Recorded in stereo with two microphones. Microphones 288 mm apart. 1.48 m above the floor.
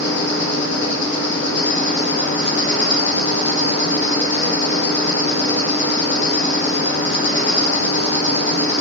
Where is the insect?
40° left (ahead or behind), 0.9 m.